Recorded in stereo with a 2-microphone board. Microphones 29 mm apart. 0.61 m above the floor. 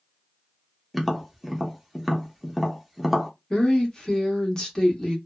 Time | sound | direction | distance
0.9 | tapping | 5° right (ahead or behind) | 0.6 m
3.5 | a woman speaking | 20° left (ahead or behind) | 1.0 m